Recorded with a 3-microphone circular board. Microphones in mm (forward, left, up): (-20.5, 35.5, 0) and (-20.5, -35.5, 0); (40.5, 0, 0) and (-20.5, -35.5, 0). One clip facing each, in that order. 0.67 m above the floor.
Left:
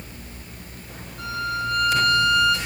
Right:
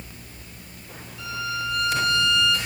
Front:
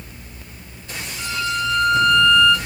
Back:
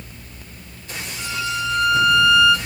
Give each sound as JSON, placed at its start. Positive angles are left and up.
{"t": 1.2, "sound": "a violin", "azimuth_deg": 130, "distance_m": 5.5}